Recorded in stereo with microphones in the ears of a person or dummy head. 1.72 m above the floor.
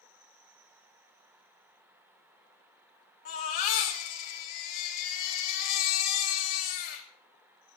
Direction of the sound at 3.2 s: 45° left (ahead or behind).